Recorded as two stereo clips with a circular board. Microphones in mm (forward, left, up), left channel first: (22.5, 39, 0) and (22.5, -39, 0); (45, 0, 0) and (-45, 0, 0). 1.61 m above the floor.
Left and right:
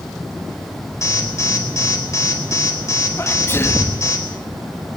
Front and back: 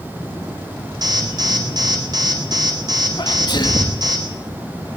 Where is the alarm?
140° left, 4.5 m.